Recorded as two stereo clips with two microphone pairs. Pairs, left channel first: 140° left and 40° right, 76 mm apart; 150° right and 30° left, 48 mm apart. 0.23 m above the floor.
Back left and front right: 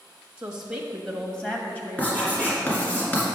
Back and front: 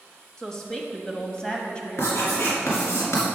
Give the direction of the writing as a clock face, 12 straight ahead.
5 o'clock.